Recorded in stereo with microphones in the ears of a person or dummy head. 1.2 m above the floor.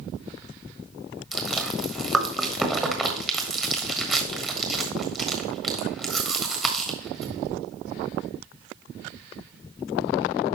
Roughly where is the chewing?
Centre.